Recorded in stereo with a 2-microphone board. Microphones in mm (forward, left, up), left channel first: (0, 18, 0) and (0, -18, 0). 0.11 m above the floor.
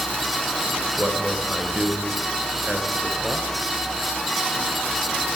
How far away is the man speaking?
About 1.2 m.